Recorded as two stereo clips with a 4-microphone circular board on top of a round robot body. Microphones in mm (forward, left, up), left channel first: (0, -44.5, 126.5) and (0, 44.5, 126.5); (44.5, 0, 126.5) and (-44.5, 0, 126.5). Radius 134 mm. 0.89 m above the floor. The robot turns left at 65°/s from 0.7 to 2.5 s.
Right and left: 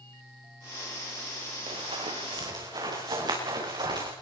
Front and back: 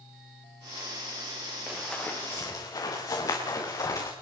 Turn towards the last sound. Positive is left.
turn(degrees=50)